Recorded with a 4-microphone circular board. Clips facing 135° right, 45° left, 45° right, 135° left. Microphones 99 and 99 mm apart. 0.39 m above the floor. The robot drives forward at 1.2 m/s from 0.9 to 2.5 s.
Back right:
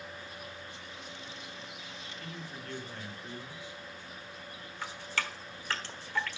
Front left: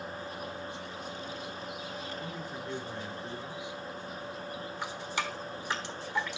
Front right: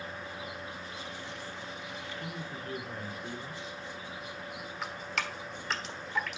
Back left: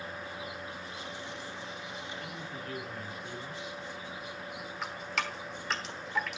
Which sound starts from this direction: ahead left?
Dripping, at 4.8 s.